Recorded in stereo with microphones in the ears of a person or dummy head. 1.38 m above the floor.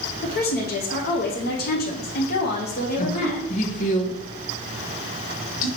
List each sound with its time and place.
0.2 s a woman speaking: 45° left (ahead or behind), 0.6 m
3.0 s a woman speaking: 40° left (ahead or behind), 1.1 m